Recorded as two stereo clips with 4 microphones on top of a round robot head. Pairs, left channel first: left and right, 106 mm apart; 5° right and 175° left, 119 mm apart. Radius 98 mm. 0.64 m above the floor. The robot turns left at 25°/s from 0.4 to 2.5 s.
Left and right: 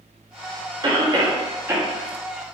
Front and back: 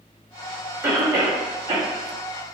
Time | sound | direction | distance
0.8 | a cough | 120° right | 0.8 m